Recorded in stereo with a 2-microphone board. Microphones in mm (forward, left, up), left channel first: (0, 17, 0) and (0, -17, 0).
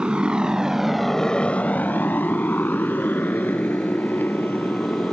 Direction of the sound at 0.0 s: 35° right (ahead or behind).